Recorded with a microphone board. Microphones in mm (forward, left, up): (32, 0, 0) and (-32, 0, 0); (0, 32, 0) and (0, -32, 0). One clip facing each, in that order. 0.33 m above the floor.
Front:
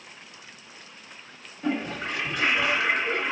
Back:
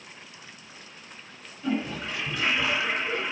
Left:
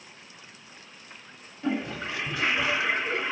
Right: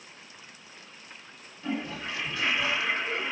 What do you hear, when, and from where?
1.6 s a toilet flushing: 25° left, 1.8 m